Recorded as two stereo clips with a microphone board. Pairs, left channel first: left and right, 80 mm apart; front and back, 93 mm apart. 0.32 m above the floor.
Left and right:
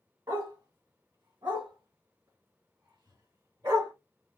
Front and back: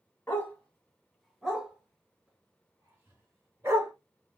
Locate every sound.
0.3 s a dog barking: 60° right, 1.1 m; by 3.9 s 125° right, 2 m